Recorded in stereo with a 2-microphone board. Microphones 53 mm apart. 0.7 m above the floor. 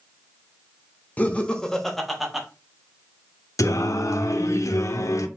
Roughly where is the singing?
Left.